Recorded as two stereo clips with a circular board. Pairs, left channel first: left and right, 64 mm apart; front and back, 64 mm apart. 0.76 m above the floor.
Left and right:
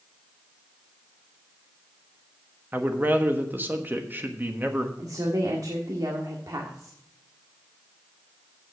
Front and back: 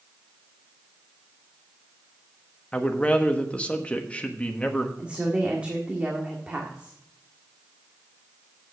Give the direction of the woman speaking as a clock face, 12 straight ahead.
4 o'clock.